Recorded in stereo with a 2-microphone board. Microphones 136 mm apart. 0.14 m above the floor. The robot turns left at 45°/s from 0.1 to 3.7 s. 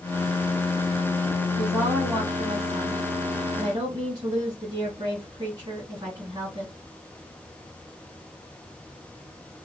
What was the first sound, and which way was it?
A woman speaking, 5° right.